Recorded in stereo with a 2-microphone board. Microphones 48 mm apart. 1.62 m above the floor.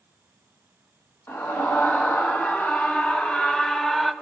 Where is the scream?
50° left (ahead or behind), 2.5 m; by 4.1 s 5° left (ahead or behind), 1.7 m.